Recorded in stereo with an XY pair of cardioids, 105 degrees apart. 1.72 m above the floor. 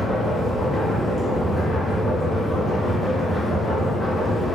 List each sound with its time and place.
0.0 s a machine running: 10° left, 0.9 m